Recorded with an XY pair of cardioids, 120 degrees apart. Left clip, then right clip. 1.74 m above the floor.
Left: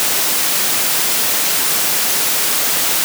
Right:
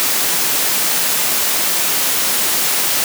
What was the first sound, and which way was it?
Only background noise.